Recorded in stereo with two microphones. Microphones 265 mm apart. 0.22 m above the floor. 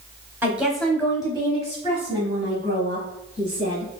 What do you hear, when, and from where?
0.4 s a woman speaking: 10° right (ahead or behind), 0.9 m; by 3.9 s 40° left (ahead or behind), 2 m